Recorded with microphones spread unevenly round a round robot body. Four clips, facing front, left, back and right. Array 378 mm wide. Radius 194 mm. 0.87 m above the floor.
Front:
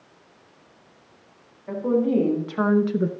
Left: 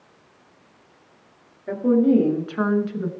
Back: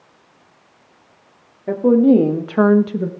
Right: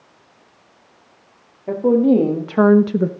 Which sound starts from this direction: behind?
A woman speaking, at 1.7 s.